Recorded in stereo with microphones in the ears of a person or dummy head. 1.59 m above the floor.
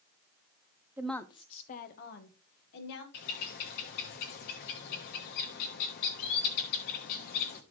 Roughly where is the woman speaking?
Centre.